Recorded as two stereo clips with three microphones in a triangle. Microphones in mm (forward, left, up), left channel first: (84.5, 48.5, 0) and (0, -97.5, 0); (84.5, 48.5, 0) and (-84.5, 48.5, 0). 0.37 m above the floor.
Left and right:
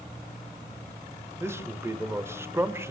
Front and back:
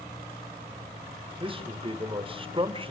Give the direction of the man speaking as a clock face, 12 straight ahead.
6 o'clock.